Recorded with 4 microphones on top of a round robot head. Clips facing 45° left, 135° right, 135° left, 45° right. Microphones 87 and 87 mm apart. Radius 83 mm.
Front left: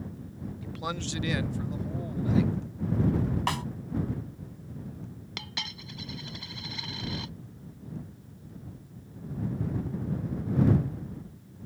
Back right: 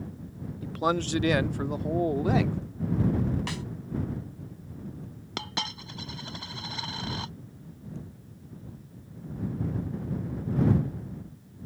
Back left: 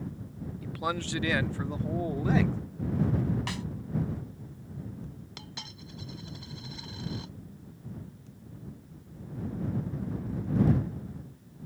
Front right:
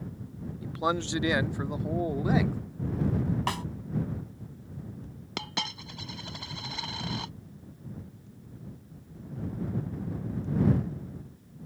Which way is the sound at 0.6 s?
100° right.